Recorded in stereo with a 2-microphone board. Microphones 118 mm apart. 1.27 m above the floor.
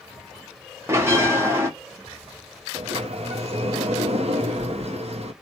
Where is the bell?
20° right (ahead or behind), 0.9 m.